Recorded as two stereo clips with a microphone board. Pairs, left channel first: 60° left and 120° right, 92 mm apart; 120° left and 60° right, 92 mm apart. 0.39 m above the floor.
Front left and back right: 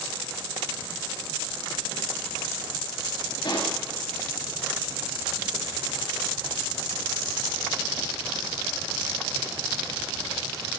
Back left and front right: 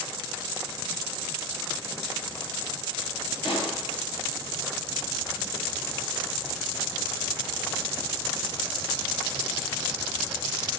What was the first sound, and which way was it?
A pop, 95° left.